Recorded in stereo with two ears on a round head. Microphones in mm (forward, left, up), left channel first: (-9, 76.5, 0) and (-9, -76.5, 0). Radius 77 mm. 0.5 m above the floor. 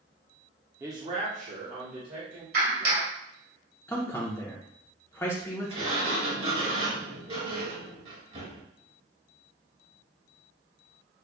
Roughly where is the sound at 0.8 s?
Centre.